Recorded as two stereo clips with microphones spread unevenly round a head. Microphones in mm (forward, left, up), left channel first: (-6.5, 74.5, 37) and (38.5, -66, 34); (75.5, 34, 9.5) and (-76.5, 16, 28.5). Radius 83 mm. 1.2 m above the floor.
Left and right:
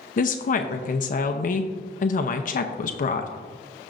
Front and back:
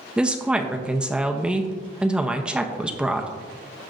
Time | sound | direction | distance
0.2 | a woman speaking | 100° left | 0.7 m